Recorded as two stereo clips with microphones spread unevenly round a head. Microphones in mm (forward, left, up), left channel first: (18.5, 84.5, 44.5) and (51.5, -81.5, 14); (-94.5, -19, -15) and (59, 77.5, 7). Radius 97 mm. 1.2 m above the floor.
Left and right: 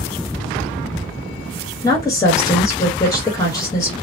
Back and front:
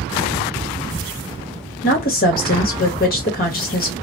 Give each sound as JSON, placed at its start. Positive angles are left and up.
{"t": 1.8, "sound": "a woman speaking", "azimuth_deg": 175, "distance_m": 1.1}